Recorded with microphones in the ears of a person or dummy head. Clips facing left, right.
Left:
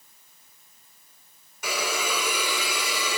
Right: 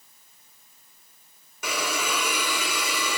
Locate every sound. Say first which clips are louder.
1.6 s a hiss: even; 70° right (ahead or behind), 3 m